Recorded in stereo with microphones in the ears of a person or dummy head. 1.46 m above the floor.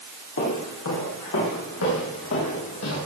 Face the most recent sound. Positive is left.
turn(degrees=75)  # may be behind; listen again after turning